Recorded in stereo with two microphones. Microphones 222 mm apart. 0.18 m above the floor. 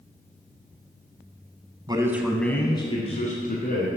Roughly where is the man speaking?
Centre.